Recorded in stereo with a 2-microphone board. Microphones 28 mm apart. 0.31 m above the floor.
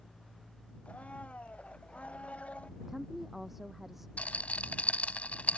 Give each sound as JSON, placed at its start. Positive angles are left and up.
{"t": 0.8, "sound": "a blender", "side_deg": 45}
{"t": 2.8, "sound": "a woman speaking", "side_deg": -5}
{"t": 4.2, "sound": "a rattle", "side_deg": 60}